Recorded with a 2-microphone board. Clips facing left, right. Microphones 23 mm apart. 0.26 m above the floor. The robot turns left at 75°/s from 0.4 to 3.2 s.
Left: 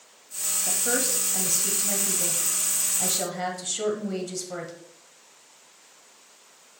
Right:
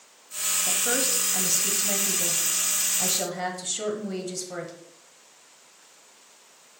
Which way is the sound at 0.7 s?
Centre (ahead or behind).